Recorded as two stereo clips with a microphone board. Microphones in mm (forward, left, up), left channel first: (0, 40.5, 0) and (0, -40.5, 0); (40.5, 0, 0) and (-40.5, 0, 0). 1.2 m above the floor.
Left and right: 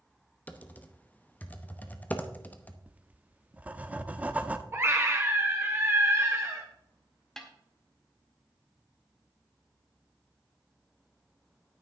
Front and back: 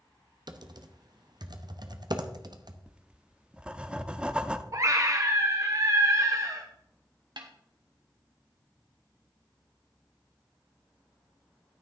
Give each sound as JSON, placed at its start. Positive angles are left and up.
{"t": 0.5, "sound": "typing on a keyboard", "azimuth_deg": 160, "distance_m": 0.9}
{"t": 2.9, "sound": "writing", "azimuth_deg": -125, "distance_m": 0.7}
{"t": 4.7, "sound": "a scream", "azimuth_deg": -140, "distance_m": 0.8}
{"t": 7.4, "sound": "a snare drum", "azimuth_deg": 175, "distance_m": 1.7}